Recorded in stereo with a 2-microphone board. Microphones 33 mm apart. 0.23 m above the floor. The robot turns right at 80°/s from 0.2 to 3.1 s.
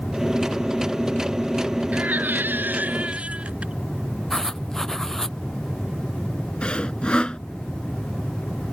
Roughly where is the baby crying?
Behind right.